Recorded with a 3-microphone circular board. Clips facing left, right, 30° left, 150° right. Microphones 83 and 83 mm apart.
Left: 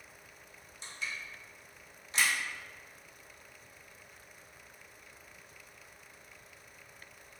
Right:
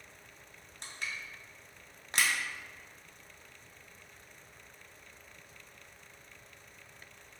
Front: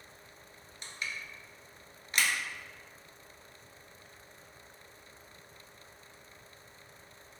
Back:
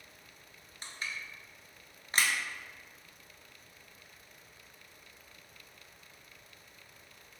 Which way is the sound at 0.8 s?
95° right.